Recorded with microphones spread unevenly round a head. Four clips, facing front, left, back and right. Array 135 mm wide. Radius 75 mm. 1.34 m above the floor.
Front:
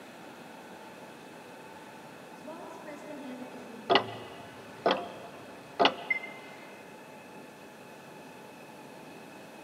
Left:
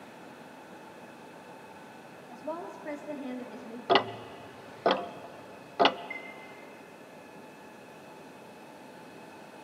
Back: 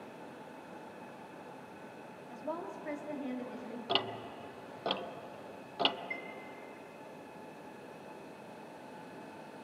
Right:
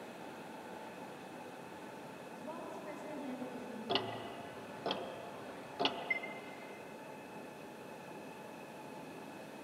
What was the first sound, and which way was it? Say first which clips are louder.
A woman speaking: left 9 dB, back 5 dB; 115° left.